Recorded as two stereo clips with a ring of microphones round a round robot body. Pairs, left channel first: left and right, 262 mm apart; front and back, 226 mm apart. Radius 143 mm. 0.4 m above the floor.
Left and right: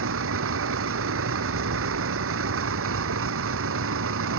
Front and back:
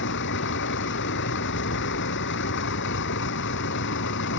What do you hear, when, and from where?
0.0 s a vehicle: 50° right